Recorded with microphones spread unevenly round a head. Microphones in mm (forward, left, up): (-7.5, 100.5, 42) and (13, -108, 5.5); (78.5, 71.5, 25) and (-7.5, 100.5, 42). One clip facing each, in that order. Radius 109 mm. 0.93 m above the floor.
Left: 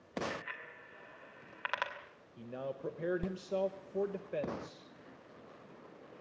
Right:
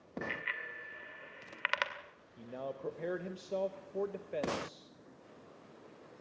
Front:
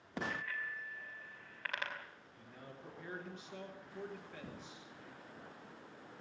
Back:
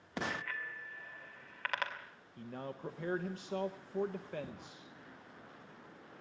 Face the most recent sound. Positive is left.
turn(degrees=-175)